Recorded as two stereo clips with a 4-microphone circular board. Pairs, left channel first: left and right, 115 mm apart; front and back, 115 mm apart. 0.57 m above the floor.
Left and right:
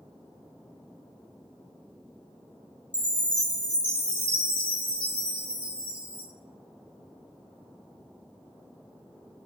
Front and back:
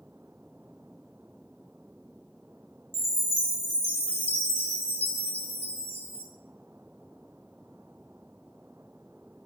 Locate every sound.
2.9 s a chime: 10° left, 1.1 m